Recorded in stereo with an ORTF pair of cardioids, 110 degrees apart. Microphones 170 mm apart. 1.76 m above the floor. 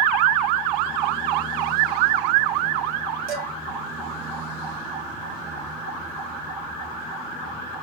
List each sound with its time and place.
3.3 s dishes clattering: 70° right, 3 m